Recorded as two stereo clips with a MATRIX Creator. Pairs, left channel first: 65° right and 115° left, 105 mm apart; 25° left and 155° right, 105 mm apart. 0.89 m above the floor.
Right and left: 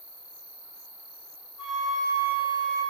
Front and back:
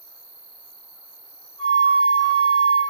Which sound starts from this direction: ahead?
A flute, at 1.6 s.